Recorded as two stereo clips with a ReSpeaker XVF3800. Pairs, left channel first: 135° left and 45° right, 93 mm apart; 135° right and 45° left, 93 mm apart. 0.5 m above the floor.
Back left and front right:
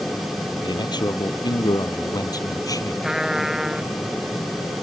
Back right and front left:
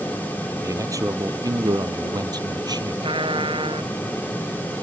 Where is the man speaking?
100° left; by 2.9 s 85° left.